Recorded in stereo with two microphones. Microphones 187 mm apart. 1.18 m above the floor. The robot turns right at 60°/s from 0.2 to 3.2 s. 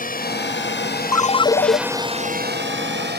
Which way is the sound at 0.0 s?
50° left (ahead or behind).